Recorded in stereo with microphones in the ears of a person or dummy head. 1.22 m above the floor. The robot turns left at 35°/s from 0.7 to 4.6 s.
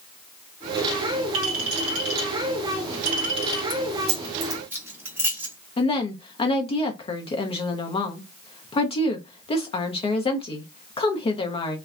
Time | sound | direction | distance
1.3 | a clink | 80° right | 1.5 m
3.7 | keys jangling | 40° right (ahead or behind) | 0.6 m
5.8 | a woman speaking | 30° left (ahead or behind) | 0.6 m